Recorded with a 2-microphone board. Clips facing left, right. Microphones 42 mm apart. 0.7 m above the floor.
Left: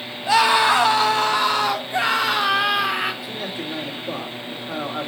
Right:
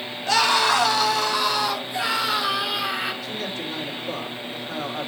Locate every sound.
0.3 s a scream: 15° left (ahead or behind), 1.3 m; by 3.1 s 50° left (ahead or behind), 2.5 m
3.2 s a man speaking: 35° left (ahead or behind), 2.5 m